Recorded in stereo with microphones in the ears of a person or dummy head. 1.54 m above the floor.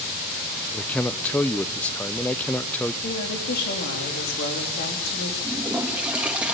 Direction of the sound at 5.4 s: 5° right (ahead or behind).